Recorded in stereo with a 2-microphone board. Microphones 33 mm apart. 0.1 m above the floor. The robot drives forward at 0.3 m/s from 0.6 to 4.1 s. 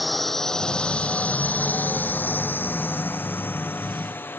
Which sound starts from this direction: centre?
A drone, at 0.0 s.